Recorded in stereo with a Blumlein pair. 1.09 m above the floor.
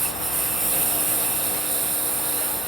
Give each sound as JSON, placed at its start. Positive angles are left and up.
{"t": 0.0, "sound": "a lawn mower", "azimuth_deg": -10}